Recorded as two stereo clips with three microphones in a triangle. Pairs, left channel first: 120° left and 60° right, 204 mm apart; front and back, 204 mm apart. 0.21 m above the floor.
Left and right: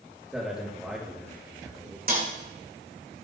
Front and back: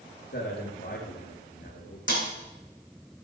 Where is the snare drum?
20° right, 7 m.